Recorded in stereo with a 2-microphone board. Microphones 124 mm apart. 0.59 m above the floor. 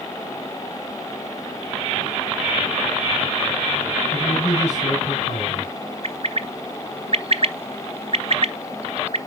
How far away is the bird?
About 0.5 m.